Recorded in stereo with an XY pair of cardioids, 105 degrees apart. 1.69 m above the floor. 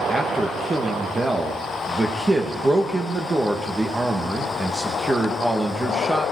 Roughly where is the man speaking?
Ahead.